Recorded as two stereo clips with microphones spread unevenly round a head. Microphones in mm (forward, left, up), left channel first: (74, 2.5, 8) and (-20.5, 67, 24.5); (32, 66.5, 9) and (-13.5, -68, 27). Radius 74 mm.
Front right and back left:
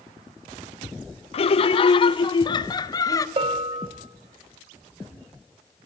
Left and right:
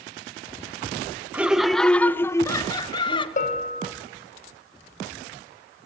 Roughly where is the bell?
Left.